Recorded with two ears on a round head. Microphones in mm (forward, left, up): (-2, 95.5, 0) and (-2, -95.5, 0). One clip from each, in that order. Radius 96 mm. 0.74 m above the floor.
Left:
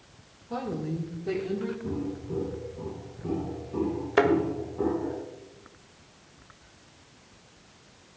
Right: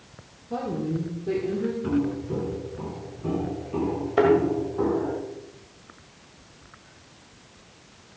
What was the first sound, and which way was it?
A woman speaking, 35° left (ahead or behind).